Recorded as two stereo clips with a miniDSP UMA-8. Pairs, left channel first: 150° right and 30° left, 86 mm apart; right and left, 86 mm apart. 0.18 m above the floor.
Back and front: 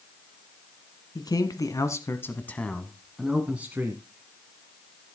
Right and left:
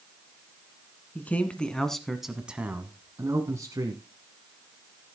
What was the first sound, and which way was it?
A man speaking, 155° right.